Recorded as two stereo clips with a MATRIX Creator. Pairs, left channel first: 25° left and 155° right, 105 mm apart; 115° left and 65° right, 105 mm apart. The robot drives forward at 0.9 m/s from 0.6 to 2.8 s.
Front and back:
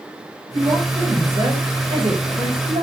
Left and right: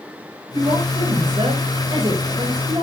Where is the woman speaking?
105° right, 8 m; by 2.8 s 120° right, 9 m.